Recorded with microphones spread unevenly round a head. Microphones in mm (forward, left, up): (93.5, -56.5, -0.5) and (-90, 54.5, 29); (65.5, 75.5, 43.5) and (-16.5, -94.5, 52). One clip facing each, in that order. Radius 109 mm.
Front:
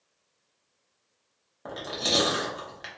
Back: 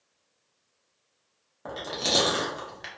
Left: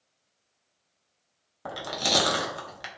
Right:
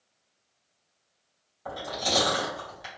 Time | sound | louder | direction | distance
1.6 | chewing | even, even | 60° left | 0.7 m